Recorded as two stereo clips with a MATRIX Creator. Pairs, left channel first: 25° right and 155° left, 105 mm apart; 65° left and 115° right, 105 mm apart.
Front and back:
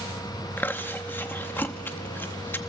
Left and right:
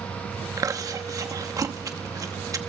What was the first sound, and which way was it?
Chewing, 80° right.